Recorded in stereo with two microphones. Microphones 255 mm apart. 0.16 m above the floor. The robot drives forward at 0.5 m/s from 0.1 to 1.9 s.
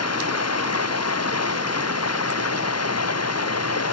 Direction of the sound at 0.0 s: 75° left (ahead or behind).